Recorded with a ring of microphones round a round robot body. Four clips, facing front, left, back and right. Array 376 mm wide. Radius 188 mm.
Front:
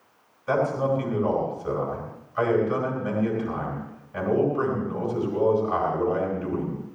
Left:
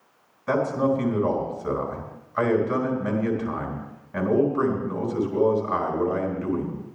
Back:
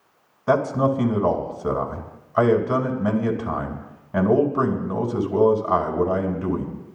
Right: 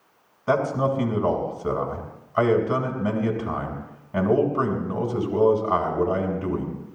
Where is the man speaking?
165° right, 3.5 m.